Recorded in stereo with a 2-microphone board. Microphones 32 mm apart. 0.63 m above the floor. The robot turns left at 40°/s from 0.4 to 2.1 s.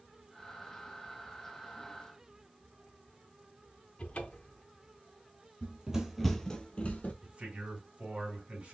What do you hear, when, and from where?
4.0 s a cupboard door: 40° left (ahead or behind), 0.5 m
5.6 s running footsteps: 30° right (ahead or behind), 0.8 m; by 7.1 s 50° left (ahead or behind), 0.9 m
7.2 s a man speaking: 45° right (ahead or behind), 2.5 m